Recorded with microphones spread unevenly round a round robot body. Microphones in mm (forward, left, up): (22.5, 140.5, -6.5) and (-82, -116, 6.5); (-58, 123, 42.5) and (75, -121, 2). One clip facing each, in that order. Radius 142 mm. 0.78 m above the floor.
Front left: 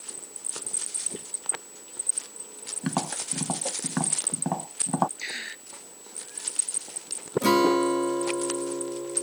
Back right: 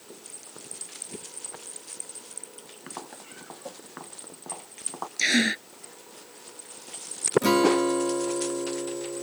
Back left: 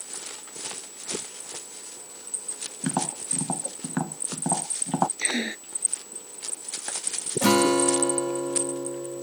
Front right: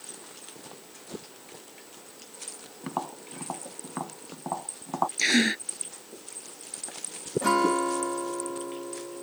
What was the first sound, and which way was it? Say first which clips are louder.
Tapping: front left 14 dB, back left 7 dB; 75° left.